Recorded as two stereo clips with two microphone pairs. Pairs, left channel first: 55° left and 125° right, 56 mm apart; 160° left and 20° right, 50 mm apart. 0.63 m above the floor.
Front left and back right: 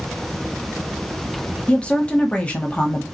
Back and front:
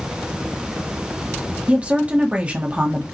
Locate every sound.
1.7 s a woman speaking: 15° left, 1.0 m